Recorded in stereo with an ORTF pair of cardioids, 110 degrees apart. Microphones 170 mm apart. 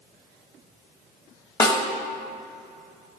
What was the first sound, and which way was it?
A snare drum, 25° left.